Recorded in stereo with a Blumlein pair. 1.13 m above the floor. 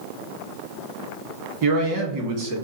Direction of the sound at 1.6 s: 45° right.